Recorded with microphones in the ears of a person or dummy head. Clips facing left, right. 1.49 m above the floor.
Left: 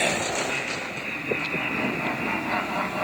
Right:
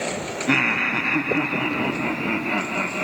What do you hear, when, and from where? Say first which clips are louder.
0.5 s laughter: right 8 dB; 90° right, 0.8 m; by 3.0 s 35° right (ahead or behind), 1.7 m